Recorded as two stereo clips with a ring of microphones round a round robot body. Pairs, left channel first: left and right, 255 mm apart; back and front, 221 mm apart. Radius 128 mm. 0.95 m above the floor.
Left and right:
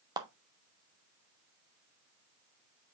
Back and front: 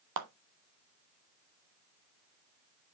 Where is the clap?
15° right, 1.2 m.